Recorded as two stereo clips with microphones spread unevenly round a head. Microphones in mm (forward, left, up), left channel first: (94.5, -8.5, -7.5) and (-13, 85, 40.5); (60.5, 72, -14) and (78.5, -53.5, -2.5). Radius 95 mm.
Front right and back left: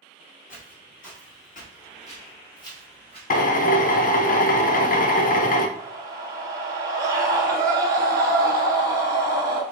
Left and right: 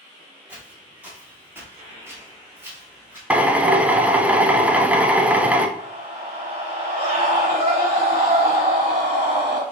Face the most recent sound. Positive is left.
turn(degrees=-145)